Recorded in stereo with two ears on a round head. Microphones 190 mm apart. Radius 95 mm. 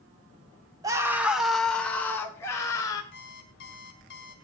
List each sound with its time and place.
0.8 s a scream: 20° right (ahead or behind), 1.9 m; by 3.0 s 15° left (ahead or behind), 4.5 m
3.1 s an alarm clock: 40° left (ahead or behind), 3.5 m